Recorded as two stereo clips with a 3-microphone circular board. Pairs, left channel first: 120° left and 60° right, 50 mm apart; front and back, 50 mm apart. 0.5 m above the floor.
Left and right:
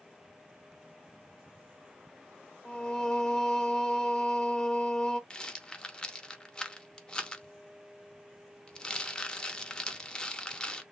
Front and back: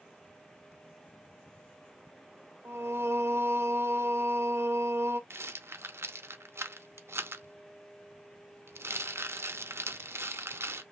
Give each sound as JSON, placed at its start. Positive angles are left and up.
{"t": 2.6, "sound": "singing", "azimuth_deg": -165, "distance_m": 0.5}
{"t": 5.3, "sound": "a rattle", "azimuth_deg": -175, "distance_m": 0.5}